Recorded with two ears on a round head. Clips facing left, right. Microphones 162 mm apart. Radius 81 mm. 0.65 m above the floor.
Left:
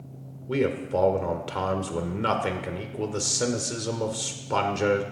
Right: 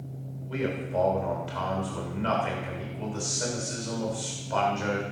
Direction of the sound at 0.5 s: 70° left (ahead or behind).